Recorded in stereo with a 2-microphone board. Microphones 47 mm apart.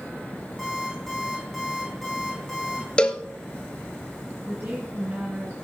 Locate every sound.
0.6 s an alarm clock: centre (ahead or behind), 8 m
3.0 s a cowbell: 20° left (ahead or behind), 1.1 m
4.5 s a woman speaking: 50° right (ahead or behind), 3 m